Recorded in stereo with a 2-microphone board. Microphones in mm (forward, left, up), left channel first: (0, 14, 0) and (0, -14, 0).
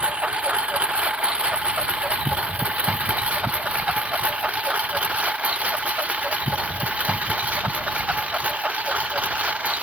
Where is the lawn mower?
45° right (ahead or behind); by 9.8 s 55° right (ahead or behind).